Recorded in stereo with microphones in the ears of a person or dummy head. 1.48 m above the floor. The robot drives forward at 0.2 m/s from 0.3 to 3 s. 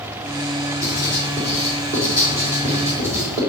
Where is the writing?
15° right (ahead or behind), 4 m; by 3.4 s 10° right (ahead or behind), 4.5 m.